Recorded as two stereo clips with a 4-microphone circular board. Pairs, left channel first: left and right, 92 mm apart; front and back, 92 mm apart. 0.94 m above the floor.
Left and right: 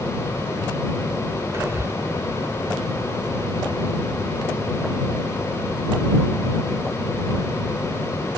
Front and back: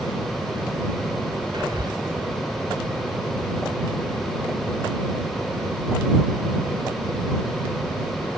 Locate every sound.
1.5 s whispering: 145° right